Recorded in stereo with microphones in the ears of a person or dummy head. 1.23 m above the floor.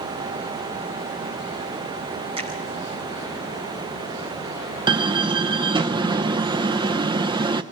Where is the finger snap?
25° right (ahead or behind), 4.5 m.